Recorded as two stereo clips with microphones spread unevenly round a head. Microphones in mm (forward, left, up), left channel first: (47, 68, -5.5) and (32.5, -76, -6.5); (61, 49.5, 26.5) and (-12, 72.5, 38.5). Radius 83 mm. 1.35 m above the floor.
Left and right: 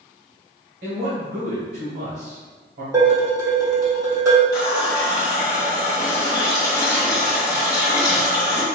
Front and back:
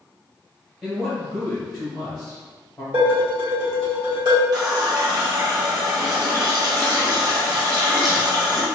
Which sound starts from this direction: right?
A man speaking, at 0.8 s.